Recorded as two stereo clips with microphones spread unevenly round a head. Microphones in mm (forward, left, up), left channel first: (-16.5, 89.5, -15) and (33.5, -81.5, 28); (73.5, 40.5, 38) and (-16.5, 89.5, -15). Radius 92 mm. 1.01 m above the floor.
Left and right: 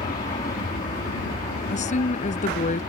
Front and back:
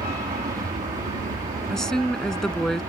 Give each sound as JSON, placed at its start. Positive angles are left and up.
{"t": 0.0, "sound": "an aircraft", "azimuth_deg": 160}
{"t": 1.7, "sound": "a woman speaking", "azimuth_deg": 55}